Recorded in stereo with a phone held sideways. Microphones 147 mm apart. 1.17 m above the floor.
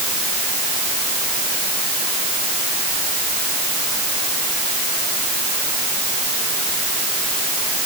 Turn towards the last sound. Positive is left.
No sound to turn to.